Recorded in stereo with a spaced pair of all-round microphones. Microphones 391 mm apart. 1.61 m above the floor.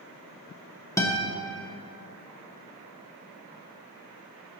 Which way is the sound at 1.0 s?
10° left (ahead or behind).